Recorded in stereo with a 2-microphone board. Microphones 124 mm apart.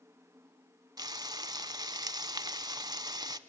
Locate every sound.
1.0 s frying: 30° right (ahead or behind), 0.5 m